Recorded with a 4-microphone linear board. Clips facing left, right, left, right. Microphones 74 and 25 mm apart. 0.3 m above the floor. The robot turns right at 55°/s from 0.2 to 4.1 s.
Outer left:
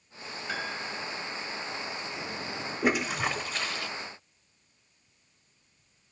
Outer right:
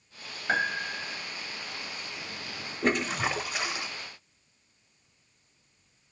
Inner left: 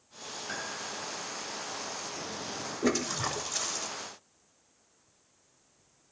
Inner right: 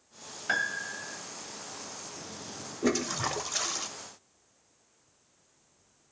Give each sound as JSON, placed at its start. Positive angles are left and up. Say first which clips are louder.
{"t": 0.5, "sound": "a piano", "louder": "outer right 7 dB, inner right 9 dB", "azimuth_deg": -95, "distance_m": 1.0}
{"t": 2.8, "sound": "a toilet flushing", "louder": "even, inner right 1 dB", "azimuth_deg": 165, "distance_m": 0.7}